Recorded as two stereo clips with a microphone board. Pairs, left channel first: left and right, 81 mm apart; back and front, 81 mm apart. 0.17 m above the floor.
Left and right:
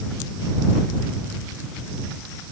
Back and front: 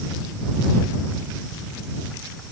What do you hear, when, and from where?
Only background noise.